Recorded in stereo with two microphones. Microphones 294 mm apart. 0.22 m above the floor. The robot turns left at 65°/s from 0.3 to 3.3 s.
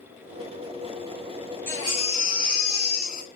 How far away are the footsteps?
I don't hear footsteps.